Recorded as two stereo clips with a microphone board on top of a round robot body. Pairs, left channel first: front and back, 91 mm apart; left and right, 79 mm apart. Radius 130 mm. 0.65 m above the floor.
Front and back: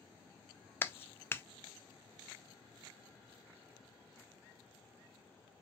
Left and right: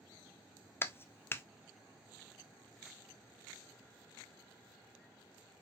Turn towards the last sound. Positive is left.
turn(degrees=50)